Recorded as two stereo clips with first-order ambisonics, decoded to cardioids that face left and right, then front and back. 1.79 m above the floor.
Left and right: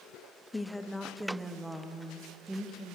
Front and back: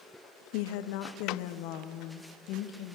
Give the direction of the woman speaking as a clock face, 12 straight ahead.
12 o'clock.